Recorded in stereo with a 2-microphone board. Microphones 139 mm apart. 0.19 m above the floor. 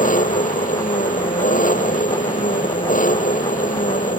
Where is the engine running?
75° left (ahead or behind).